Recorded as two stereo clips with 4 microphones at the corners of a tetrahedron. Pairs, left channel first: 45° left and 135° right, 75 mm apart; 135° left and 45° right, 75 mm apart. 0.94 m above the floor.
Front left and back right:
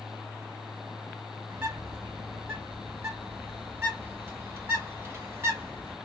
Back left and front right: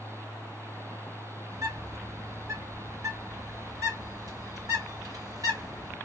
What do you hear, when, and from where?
1.5 s a bird: 80° right, 2 m